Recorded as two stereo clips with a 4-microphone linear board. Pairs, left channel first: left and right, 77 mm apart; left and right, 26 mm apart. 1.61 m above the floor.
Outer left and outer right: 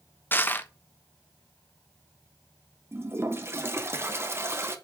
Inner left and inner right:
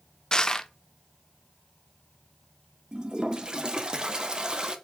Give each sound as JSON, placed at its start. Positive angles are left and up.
{"t": 0.3, "sound": "crushing", "side_deg": 30, "distance_m": 1.1}
{"t": 2.9, "sound": "a toilet flushing", "side_deg": -35, "distance_m": 1.5}